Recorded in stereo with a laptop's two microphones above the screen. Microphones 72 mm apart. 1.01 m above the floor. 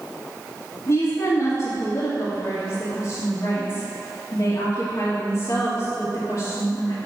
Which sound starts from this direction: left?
A woman speaking, at 0.9 s.